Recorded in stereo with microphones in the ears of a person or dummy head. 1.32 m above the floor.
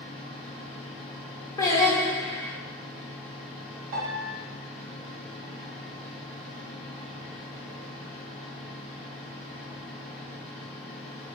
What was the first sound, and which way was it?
A fan, centre (ahead or behind).